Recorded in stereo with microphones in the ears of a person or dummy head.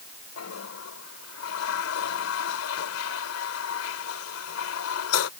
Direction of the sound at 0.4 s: 85° left.